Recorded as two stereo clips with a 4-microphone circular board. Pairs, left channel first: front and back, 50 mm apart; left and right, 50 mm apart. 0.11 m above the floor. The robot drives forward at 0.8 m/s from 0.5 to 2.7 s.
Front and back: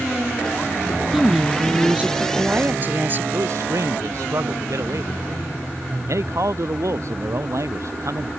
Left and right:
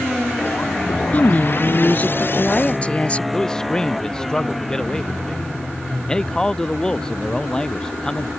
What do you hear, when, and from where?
1.1 s a woman speaking: 95° left; by 3.2 s 145° left
3.3 s a man speaking: 165° left